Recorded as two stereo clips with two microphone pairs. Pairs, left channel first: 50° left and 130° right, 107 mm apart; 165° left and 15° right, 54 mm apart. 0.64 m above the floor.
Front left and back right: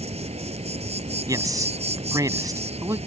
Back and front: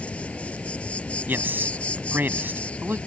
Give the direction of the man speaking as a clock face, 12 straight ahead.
2 o'clock.